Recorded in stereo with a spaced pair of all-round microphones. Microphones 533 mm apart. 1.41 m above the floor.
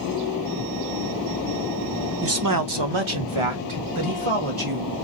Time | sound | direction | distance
2.2 | a man speaking | 25° right (ahead or behind) | 0.5 m